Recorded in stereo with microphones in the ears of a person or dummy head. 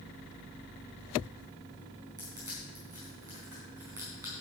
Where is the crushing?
15° right (ahead or behind), 4.5 m.